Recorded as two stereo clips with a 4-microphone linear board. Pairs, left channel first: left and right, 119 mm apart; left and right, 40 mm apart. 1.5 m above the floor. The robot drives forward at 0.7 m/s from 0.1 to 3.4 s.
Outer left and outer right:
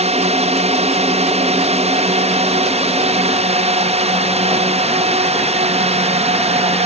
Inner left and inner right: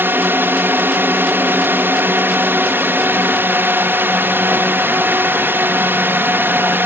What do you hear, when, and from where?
0.0 s a drone: 65° right (ahead or behind)